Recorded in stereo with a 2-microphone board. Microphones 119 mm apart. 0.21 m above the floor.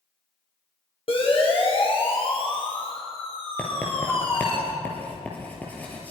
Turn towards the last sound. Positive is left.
turn(degrees=15)  # may be behind; listen again after turning